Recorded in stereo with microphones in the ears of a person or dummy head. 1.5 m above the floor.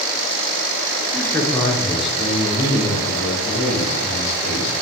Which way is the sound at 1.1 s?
10° left (ahead or behind).